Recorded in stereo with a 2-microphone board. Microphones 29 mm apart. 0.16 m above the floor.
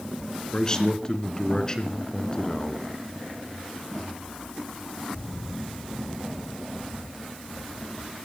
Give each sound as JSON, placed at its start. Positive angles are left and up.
{"t": 0.5, "sound": "a man speaking", "side_deg": 25, "distance_m": 1.9}